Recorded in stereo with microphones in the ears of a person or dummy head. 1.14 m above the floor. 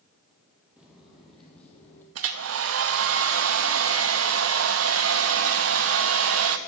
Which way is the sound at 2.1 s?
70° right (ahead or behind).